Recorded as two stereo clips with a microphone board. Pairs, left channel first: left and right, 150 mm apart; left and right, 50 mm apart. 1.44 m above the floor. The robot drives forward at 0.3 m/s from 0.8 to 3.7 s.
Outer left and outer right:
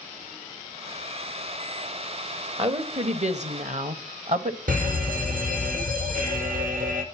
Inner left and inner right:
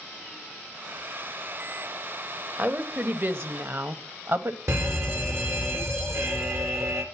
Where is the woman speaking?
40° right (ahead or behind), 1.1 m; by 4.6 s 55° right (ahead or behind), 0.9 m.